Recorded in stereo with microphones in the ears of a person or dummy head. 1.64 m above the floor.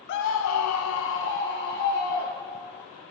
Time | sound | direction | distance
0.1 | a scream | 55° left (ahead or behind) | 0.6 m